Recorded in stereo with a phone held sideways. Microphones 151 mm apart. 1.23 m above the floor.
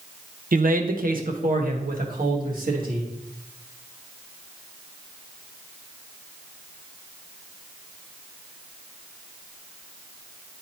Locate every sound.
0.5 s a man speaking: 65° right (ahead or behind), 0.6 m; by 3.1 s 70° right (ahead or behind), 2 m